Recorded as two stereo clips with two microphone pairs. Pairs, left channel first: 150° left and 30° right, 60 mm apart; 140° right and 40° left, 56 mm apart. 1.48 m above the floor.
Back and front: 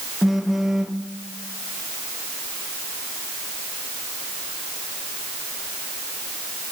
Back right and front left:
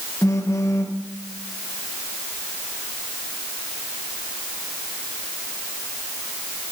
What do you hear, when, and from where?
0.2 s a phone buzzing: 115° right, 0.8 m